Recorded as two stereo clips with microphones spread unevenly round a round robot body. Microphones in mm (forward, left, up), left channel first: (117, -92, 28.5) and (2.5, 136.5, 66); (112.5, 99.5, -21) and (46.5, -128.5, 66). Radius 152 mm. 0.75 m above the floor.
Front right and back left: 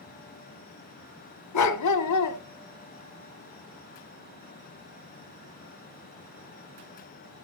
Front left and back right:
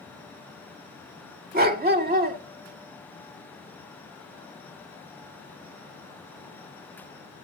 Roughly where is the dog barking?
Ahead right.